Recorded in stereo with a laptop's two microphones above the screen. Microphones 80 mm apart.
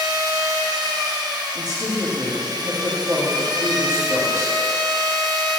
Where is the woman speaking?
55° right (ahead or behind), 2 m.